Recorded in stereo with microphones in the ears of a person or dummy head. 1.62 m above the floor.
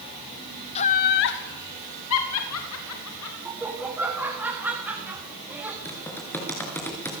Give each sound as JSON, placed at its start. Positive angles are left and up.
{"t": 0.8, "sound": "laughter", "side_deg": 30, "distance_m": 0.8}
{"t": 3.5, "sound": "laughter", "side_deg": -5, "distance_m": 3.0}
{"t": 5.8, "sound": "typing on a keyboard", "side_deg": 20, "distance_m": 5.0}